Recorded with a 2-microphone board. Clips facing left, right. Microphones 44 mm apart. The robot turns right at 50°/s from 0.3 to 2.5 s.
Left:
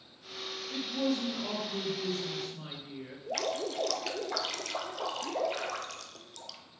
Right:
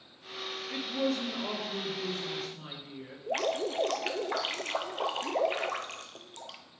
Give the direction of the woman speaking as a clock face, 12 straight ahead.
3 o'clock.